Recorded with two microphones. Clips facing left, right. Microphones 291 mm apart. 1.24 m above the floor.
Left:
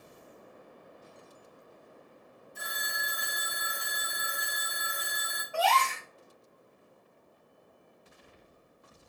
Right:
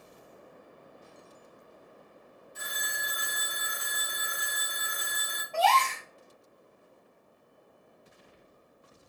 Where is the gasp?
10° left (ahead or behind), 1.5 m.